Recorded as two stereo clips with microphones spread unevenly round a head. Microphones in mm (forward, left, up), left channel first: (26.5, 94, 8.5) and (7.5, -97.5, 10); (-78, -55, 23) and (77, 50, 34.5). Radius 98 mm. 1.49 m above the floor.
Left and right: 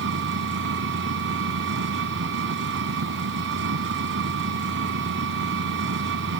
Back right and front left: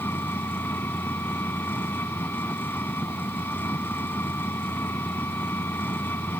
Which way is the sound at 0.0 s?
65° right.